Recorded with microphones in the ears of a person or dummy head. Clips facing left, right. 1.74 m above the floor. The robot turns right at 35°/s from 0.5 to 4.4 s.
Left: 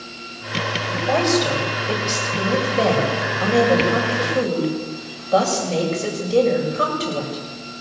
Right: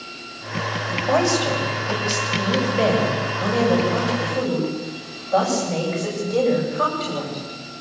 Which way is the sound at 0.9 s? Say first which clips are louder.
Left 1 dB; 10° left.